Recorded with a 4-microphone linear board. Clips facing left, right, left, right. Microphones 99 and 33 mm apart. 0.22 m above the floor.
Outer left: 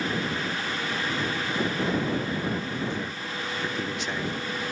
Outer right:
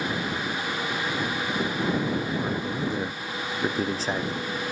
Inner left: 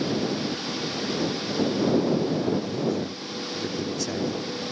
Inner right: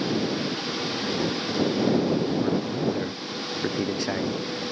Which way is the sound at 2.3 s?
40° right (ahead or behind).